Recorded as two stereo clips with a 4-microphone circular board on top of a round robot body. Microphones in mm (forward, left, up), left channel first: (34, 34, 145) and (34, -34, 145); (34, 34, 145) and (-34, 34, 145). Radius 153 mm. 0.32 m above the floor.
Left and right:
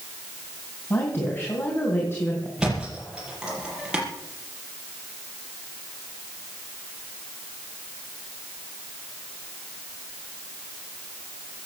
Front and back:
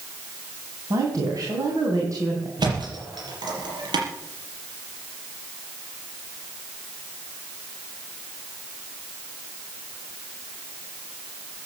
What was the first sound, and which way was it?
A woman speaking, 145° left.